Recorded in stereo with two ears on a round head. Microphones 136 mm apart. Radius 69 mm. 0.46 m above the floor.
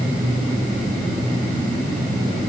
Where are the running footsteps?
No running footsteps in this recording.